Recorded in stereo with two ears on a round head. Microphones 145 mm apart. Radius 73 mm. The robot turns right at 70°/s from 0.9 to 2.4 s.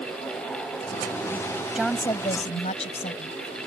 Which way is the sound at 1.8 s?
5° right.